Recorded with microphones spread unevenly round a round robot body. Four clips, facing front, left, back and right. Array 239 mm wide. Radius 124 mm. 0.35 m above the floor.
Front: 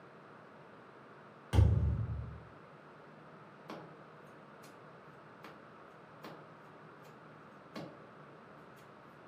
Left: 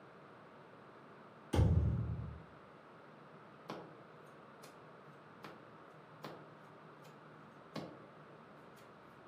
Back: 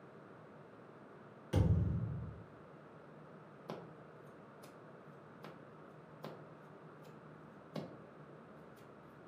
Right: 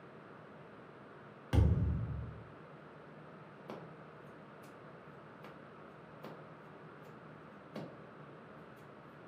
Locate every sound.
1.5 s a thud: 70° right, 1.2 m
3.7 s scissors: 155° right, 0.7 m